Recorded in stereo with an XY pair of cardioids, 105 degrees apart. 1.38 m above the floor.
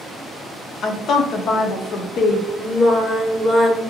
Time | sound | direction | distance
0.8 | a woman speaking | 65° left | 0.6 m
2.6 | singing | 30° left | 0.7 m